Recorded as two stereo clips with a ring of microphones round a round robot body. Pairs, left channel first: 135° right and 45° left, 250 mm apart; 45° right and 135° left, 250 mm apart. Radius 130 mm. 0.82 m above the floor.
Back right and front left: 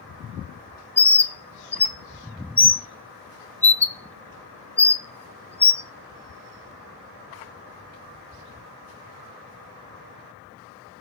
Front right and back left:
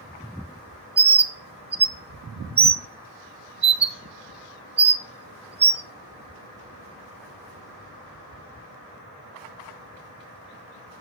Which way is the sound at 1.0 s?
150° left.